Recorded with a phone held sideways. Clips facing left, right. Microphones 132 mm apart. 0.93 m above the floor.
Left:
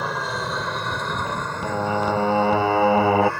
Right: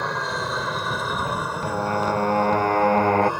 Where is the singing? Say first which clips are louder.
Left 2 dB; 5° left (ahead or behind).